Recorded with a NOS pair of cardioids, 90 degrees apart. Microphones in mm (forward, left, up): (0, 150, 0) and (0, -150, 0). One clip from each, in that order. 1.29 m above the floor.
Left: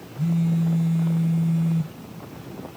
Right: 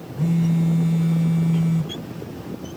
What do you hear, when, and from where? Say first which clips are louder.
0.2 s a phone buzzing: right 3 dB; 20° right, 4.5 m